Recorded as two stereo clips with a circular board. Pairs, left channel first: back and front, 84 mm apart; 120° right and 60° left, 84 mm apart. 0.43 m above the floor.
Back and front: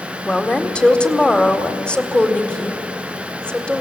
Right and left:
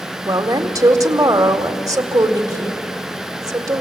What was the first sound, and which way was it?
A woman speaking, 100° left.